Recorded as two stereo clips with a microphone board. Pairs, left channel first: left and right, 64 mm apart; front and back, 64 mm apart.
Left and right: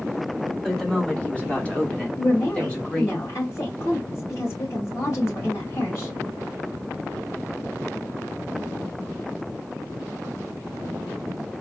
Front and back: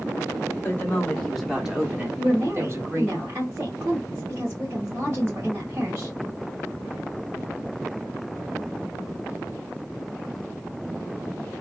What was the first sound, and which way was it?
A woman speaking, 25° left.